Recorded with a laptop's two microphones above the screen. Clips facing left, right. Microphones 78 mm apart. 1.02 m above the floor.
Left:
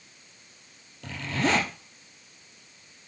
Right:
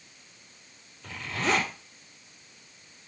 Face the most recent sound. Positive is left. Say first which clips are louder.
# left 2 dB
turn(degrees=75)  # may be behind; listen again after turning